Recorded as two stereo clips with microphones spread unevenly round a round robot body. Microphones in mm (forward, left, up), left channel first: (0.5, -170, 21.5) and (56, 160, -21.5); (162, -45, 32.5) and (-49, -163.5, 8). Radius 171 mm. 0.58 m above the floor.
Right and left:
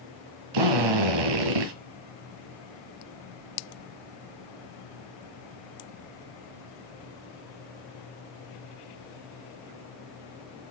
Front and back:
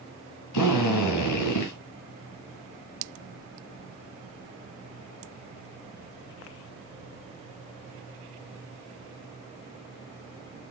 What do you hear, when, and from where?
0.5 s a drill: 70° left, 1.7 m